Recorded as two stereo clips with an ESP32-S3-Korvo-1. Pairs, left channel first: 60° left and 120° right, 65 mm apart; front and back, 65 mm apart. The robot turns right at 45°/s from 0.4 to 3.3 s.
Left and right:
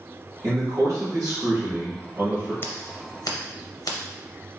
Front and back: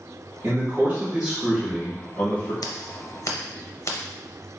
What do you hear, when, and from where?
0.4 s a man speaking: 145° right, 1.5 m; by 2.5 s 50° right, 1.5 m
2.6 s scissors: 5° left, 0.6 m; by 4.0 s 35° left, 0.6 m